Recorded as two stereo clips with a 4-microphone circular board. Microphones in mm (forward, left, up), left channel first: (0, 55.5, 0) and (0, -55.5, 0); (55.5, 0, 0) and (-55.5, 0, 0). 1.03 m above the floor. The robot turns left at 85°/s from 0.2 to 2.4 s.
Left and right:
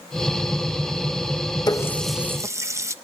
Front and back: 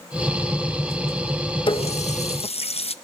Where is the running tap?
40° left, 0.6 m; by 3.0 s 25° right, 0.6 m.